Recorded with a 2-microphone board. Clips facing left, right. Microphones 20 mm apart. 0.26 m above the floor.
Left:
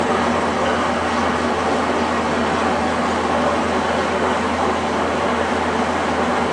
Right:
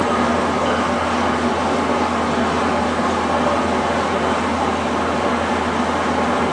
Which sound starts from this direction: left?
An engine running, at 0.0 s.